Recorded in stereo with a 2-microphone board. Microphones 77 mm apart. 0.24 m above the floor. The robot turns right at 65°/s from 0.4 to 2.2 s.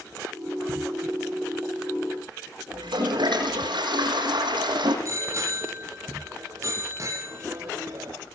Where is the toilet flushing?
80° right, 7 m.